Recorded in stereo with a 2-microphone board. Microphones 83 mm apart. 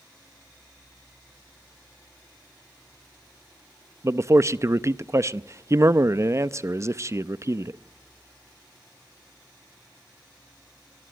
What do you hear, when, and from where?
4.0 s a man speaking: 40° right (ahead or behind), 0.6 m